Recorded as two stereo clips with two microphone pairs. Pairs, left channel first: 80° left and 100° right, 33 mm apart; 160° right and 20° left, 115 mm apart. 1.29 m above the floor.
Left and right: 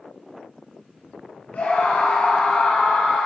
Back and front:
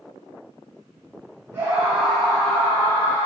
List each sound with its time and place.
1.5 s a scream: 85° left, 2.5 m; by 3.3 s 140° left, 2.5 m